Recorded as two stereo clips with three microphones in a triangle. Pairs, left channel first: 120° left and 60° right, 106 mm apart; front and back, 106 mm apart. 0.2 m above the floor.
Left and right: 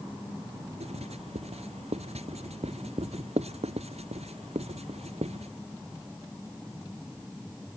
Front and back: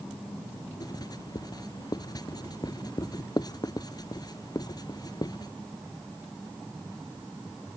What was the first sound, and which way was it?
Writing, 50° right.